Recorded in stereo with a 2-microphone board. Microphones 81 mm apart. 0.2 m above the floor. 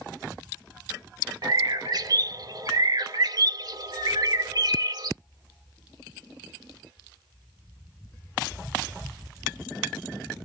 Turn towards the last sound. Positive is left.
turn(degrees=-55)  # may be behind; listen again after turning